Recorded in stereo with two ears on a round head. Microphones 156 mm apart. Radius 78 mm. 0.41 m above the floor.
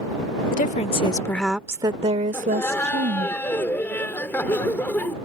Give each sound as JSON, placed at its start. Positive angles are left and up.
{"t": 0.5, "sound": "a woman speaking", "side_deg": 50}
{"t": 2.3, "sound": "laughter", "side_deg": 10}